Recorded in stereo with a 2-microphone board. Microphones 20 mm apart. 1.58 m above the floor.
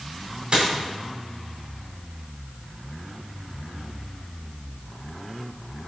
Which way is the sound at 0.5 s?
50° right (ahead or behind).